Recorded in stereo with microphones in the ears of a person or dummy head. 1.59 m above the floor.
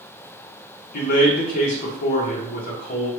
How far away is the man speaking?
About 1.0 m.